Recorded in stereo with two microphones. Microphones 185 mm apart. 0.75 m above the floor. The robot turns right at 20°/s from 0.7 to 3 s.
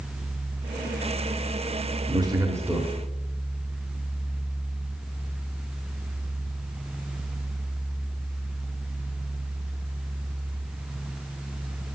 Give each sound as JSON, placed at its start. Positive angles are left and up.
{"t": 2.1, "sound": "a man speaking", "side_deg": -25, "distance_m": 1.4}